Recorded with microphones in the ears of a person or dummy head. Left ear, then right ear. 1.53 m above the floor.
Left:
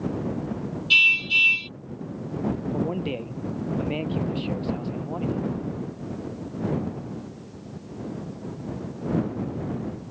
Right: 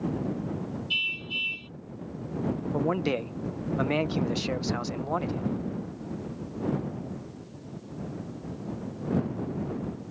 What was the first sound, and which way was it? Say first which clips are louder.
A car horn: left 12 dB; 50° left (ahead or behind).